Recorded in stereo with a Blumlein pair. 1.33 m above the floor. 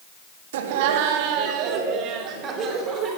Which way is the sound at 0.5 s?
55° right.